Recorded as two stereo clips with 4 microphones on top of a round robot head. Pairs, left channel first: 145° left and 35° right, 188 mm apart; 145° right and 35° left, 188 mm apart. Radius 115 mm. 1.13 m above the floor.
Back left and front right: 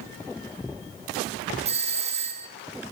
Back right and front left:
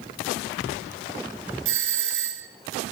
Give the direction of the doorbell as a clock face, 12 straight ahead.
11 o'clock.